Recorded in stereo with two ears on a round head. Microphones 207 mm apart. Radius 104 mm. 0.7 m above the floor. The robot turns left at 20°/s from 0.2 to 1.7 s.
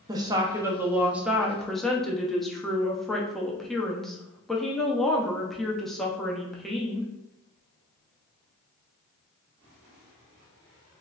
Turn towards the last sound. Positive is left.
turn(degrees=180)